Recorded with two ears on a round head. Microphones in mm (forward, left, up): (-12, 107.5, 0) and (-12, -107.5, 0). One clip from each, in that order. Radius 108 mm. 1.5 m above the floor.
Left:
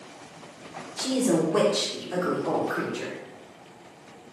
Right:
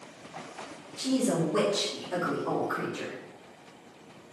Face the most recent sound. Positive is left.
turn(degrees=0)  # may be behind; listen again after turning